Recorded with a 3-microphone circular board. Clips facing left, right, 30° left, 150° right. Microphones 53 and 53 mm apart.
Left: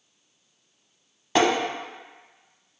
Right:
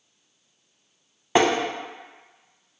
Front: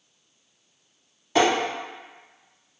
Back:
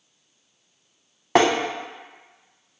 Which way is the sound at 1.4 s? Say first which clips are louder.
Right 1 dB, back 2 dB; 160° right.